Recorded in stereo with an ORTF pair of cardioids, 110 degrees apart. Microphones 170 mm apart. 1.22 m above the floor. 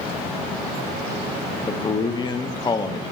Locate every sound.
1.7 s a man speaking: 25° left, 0.7 m